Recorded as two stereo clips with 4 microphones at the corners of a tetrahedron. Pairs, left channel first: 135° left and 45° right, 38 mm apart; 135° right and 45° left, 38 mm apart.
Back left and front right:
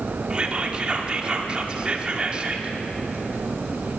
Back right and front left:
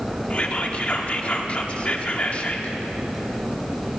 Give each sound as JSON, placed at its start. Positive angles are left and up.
{"t": 0.3, "sound": "whispering", "azimuth_deg": -95, "distance_m": 1.4}